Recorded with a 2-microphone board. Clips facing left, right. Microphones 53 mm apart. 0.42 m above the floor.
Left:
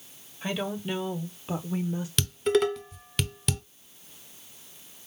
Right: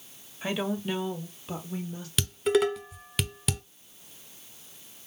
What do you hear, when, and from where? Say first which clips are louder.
0.4 s a woman speaking: right 1 dB; 10° right (ahead or behind), 1.3 m; by 2.1 s 25° left (ahead or behind), 1.1 m
2.2 s dishes clattering: even; centre (ahead or behind), 0.8 m